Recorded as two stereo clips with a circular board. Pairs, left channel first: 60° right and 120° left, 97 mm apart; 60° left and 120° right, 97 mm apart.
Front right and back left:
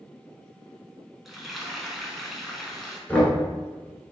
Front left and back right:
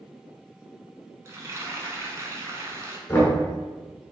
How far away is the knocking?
About 1.3 m.